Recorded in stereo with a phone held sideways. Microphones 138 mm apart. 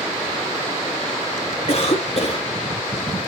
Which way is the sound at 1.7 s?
50° left (ahead or behind).